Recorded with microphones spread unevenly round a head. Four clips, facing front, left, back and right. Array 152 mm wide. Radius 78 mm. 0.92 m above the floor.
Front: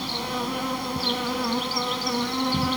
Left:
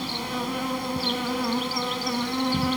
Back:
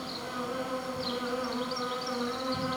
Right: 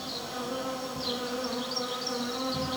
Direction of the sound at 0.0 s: 40° left.